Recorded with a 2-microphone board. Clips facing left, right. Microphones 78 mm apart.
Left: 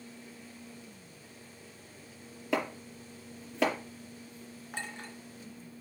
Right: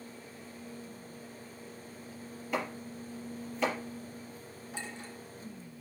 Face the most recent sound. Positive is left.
turn(degrees=55)  # may be behind; listen again after turning